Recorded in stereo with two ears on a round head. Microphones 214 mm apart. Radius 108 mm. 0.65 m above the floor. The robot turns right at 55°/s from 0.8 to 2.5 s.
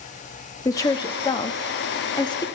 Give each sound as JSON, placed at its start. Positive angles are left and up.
{"t": 0.7, "sound": "a woman speaking", "side_deg": 15, "distance_m": 1.2}